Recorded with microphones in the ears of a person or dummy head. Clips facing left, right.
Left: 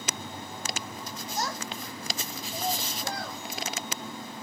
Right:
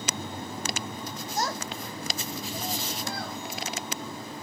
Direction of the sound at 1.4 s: 40° right (ahead or behind).